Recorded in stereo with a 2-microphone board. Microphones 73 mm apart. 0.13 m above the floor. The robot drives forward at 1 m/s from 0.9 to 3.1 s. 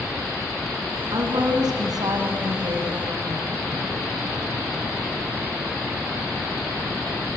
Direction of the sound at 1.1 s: 70° right (ahead or behind).